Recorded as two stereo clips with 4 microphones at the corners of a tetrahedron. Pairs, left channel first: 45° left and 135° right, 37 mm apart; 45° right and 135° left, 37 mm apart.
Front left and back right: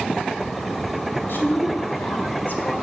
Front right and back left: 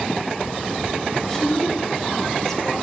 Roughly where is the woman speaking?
Ahead left.